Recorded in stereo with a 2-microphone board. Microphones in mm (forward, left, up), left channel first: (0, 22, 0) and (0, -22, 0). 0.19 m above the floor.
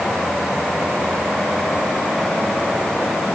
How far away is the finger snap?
I don't hear a finger snap.